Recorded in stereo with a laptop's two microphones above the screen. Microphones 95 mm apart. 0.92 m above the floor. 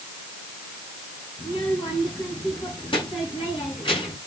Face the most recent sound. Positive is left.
turn(degrees=60)  # may be behind; listen again after turning